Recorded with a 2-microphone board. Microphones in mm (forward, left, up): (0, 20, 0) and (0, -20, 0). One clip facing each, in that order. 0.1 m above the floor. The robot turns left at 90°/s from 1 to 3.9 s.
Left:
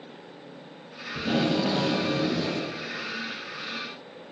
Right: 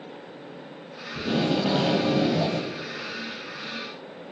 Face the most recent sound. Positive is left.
turn(degrees=130)